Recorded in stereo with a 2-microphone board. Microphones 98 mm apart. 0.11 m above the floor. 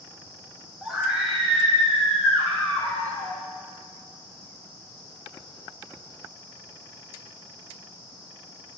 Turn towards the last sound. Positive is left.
turn(degrees=15)  # may be behind; listen again after turning